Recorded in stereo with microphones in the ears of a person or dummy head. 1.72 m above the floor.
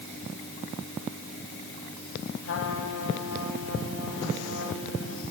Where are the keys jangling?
I don't hear keys jangling.